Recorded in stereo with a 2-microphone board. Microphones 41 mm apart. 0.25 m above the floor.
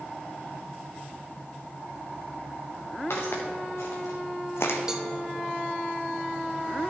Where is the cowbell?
20° right (ahead or behind), 0.8 m.